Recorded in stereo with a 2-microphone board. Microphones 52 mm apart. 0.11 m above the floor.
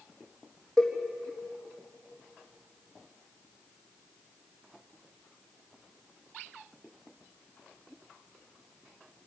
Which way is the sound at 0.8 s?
10° left (ahead or behind).